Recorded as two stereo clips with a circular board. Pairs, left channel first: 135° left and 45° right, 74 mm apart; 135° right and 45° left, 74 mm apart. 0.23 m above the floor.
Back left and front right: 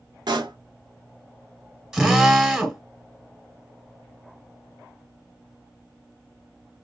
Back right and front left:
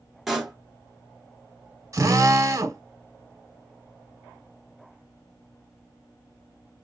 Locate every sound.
0.3 s a pop: 45° right, 1.5 m
1.9 s a drill: 35° left, 1.3 m